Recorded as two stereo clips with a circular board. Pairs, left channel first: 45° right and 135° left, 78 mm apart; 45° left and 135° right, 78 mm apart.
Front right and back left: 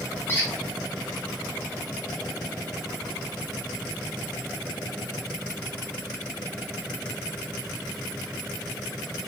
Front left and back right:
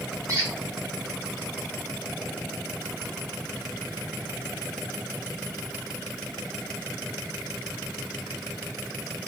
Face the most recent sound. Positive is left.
turn(degrees=-100)